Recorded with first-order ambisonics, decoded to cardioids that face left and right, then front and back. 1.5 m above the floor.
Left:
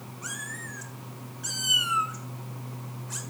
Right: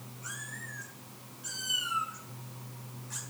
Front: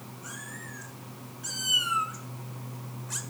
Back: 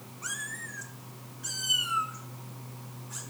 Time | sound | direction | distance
0.2 | a cat meowing | 135° left | 1.7 m